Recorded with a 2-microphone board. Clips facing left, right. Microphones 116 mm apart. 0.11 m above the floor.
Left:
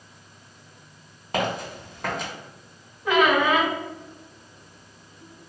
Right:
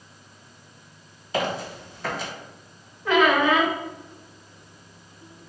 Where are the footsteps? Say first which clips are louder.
Even; 50° left (ahead or behind), 2.0 m.